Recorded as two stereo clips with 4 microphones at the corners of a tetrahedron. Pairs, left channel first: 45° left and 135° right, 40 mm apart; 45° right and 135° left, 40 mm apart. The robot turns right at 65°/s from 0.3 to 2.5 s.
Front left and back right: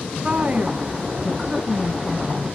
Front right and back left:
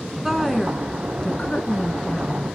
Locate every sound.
0.2 s a woman speaking: 150° right, 1.4 m; by 2.5 s 10° right, 1.4 m